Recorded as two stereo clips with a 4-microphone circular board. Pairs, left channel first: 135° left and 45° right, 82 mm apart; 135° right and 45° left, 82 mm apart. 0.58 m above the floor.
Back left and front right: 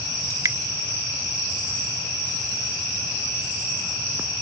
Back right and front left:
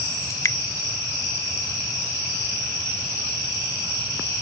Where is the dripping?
85° right.